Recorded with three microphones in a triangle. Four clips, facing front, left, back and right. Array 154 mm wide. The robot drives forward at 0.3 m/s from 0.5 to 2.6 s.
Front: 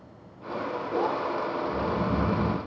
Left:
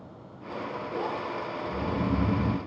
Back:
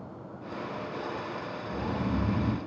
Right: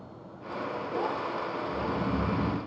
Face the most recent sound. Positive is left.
turn(degrees=145)